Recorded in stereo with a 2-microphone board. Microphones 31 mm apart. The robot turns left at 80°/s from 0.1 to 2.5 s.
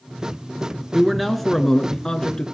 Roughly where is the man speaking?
Centre.